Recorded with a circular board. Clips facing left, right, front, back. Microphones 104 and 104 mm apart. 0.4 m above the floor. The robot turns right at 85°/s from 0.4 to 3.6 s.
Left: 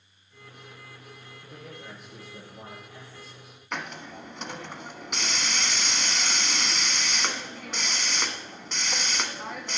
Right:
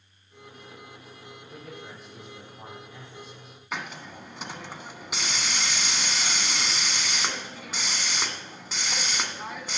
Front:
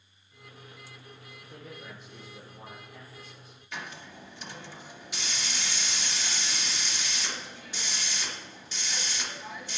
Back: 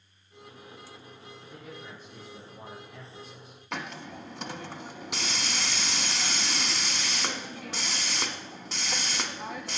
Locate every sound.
1.4 s a man speaking: 55° left, 6.5 m; by 3.6 s 120° right, 6.5 m
3.7 s a hiss: 175° right, 1.3 m